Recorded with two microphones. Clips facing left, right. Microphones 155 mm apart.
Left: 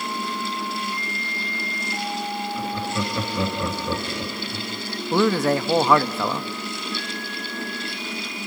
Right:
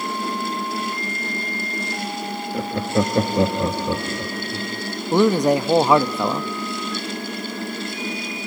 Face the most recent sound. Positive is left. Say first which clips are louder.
# right 3 dB
turn(degrees=-15)  # may be behind; listen again after turning